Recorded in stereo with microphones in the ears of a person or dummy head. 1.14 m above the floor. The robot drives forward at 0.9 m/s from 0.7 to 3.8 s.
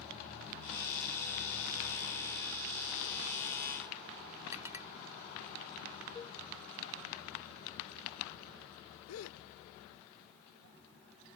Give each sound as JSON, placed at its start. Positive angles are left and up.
{"t": 4.5, "sound": "a clink", "side_deg": -15}
{"t": 6.2, "sound": "a cowbell", "side_deg": 15}
{"t": 9.1, "sound": "a gasp", "side_deg": 90}